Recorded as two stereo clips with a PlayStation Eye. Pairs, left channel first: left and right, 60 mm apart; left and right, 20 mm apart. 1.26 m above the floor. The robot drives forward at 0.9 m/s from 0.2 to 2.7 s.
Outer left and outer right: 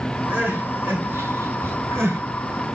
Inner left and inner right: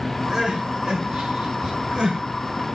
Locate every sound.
0.3 s crying: 35° right (ahead or behind), 4.5 m; by 2.2 s 50° right (ahead or behind), 3.5 m